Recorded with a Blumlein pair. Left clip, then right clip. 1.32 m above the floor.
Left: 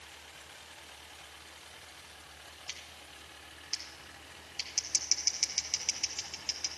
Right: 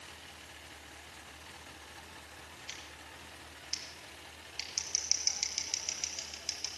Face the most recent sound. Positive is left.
turn(degrees=10)